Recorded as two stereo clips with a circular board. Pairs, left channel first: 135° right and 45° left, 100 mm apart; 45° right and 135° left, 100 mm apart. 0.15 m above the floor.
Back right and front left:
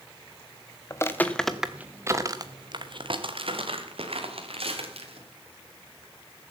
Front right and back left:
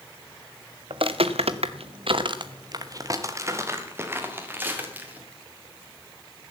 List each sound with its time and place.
0.9 s footsteps: 165° left, 1.2 m; by 5.2 s 60° left, 3.5 m